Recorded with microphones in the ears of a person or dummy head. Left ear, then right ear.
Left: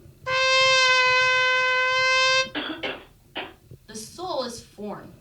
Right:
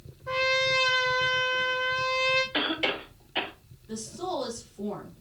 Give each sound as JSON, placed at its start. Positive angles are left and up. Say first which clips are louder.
{"t": 0.3, "sound": "a trumpet", "louder": "left 6 dB", "side_deg": 70, "distance_m": 0.7}
{"t": 2.5, "sound": "a cough", "louder": "right 3 dB", "side_deg": -25, "distance_m": 1.1}
{"t": 3.9, "sound": "a woman speaking", "louder": "left 2 dB", "side_deg": 55, "distance_m": 2.0}